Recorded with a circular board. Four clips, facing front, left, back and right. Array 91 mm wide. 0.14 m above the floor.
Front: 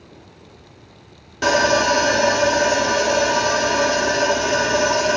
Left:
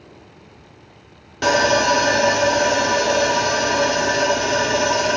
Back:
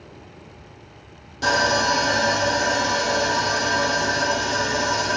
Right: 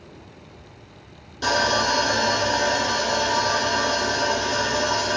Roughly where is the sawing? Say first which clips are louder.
Left 5 dB, front 4 dB; ahead left.